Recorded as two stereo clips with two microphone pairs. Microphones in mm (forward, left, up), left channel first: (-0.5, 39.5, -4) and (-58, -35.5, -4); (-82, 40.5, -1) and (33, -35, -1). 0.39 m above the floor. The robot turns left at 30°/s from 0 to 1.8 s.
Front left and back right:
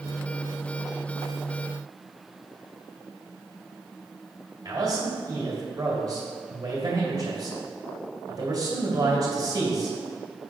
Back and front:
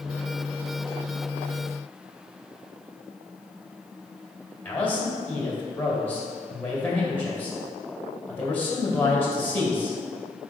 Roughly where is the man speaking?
Behind right.